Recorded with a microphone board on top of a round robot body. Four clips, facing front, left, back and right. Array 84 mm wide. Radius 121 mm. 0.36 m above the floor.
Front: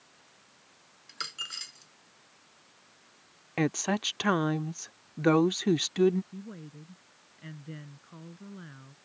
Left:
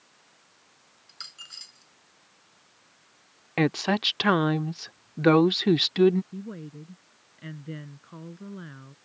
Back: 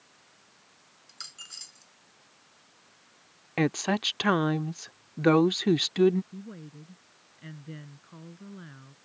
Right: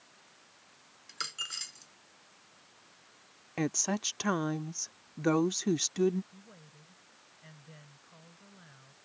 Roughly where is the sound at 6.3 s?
Left.